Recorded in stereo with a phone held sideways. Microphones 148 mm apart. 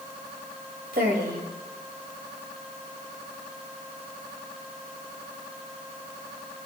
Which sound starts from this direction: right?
A woman speaking, at 0.9 s.